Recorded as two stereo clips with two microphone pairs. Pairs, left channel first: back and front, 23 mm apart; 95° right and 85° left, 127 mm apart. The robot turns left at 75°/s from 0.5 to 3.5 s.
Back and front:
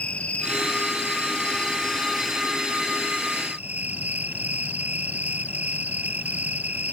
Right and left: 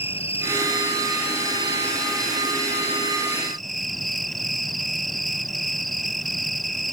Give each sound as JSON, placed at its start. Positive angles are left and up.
{"t": 0.0, "sound": "an insect", "azimuth_deg": -140}